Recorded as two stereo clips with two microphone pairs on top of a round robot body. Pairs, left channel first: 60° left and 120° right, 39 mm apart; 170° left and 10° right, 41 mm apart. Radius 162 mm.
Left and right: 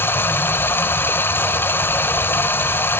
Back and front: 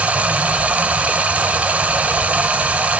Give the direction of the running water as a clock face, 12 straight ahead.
10 o'clock.